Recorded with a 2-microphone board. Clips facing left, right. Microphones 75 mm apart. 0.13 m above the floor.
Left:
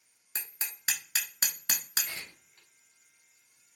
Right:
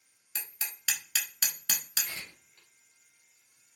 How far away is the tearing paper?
About 1.5 m.